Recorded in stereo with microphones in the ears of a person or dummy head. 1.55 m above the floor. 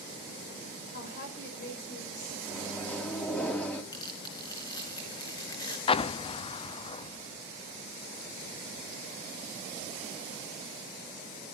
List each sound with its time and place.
0.9 s a woman speaking: 55° left (ahead or behind), 5 m
2.5 s a microwave: 10° left (ahead or behind), 3.5 m
3.9 s tearing paper: 20° left (ahead or behind), 4 m
5.9 s an explosion: 30° left (ahead or behind), 0.5 m